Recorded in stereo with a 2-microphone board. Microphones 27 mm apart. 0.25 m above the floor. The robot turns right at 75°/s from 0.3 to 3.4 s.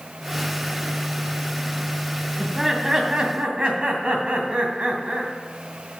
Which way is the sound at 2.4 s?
170° left.